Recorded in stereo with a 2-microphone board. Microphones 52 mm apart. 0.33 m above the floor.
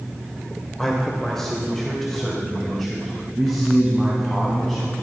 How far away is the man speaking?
About 1.4 m.